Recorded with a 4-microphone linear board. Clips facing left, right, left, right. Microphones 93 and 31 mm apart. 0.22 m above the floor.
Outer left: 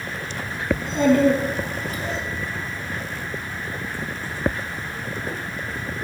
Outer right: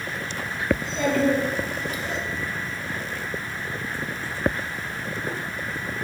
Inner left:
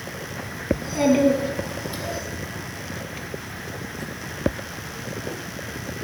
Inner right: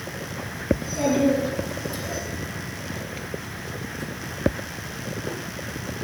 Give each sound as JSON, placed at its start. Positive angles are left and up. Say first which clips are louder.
{"t": 0.7, "sound": "a child speaking", "louder": "outer left 5 dB, inner left 3 dB", "side_deg": 55, "distance_m": 1.7}